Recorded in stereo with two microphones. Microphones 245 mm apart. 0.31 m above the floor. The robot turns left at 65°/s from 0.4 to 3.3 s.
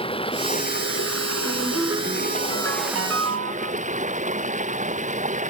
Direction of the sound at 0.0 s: 160° left.